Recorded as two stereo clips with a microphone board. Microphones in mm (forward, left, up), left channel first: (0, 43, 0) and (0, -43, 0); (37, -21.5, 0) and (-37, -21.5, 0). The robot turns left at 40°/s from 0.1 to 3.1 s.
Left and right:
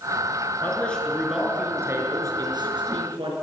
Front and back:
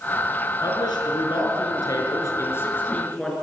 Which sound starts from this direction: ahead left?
A man speaking, at 0.6 s.